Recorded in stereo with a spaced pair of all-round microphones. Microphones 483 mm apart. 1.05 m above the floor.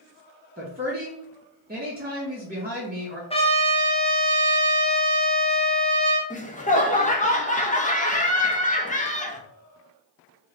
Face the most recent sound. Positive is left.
turn(degrees=15)  # may be behind; listen again after turning